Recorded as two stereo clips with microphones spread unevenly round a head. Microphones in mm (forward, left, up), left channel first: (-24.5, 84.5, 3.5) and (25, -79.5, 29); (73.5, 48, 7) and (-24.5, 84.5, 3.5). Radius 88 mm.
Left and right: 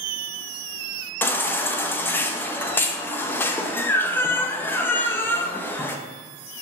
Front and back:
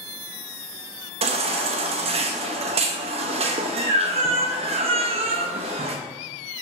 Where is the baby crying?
Straight behind, 0.6 m.